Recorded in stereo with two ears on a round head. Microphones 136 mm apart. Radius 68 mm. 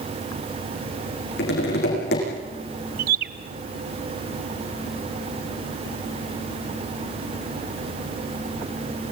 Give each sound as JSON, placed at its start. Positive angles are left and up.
{"t": 1.4, "sound": "tapping", "side_deg": 75, "distance_m": 10.0}
{"t": 3.0, "sound": "a bird", "side_deg": -60, "distance_m": 0.8}